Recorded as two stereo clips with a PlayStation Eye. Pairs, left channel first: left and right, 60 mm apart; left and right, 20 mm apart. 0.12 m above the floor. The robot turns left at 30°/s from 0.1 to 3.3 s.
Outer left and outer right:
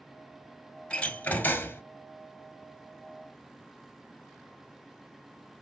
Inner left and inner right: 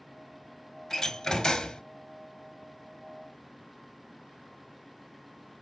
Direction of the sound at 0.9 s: 20° left (ahead or behind).